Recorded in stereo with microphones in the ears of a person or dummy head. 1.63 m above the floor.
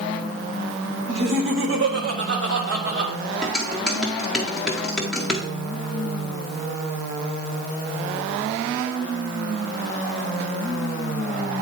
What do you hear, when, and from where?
1.1 s laughter: 80° right, 1.6 m; by 3.1 s 60° right (ahead or behind), 2.5 m
3.4 s dishes clattering: centre (ahead or behind), 1.1 m